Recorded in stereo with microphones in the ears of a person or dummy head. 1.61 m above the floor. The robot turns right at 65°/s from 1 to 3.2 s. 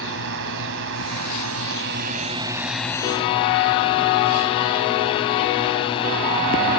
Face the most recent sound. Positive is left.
turn(degrees=30)